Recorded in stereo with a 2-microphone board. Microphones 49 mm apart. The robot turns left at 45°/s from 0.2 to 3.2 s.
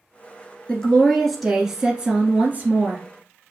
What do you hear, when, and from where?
0.7 s a woman speaking: 40° left, 1.6 m; by 3.0 s 70° right, 1.6 m